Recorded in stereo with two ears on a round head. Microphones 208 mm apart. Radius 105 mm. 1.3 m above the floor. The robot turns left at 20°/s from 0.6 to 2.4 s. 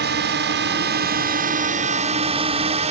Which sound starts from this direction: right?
A drone, at 0.0 s.